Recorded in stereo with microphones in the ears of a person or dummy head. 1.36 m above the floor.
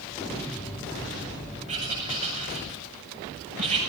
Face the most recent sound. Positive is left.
turn(degrees=-40)  # may be behind; listen again after turning